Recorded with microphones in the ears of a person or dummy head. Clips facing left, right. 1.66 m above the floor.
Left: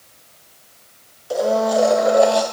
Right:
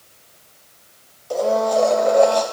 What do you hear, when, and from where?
1.3 s a blender: 5° left (ahead or behind), 0.9 m